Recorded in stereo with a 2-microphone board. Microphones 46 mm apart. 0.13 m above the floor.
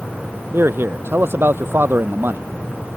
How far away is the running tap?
No running tap in this recording.